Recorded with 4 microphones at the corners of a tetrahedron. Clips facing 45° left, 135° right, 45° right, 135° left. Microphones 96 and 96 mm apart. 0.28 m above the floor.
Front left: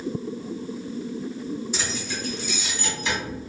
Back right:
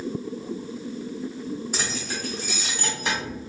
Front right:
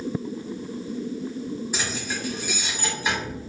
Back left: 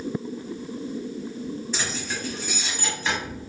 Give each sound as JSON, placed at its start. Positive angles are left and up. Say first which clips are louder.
{"t": 1.7, "sound": "keys jangling", "louder": "even, front right 1 dB", "azimuth_deg": -120, "distance_m": 1.2}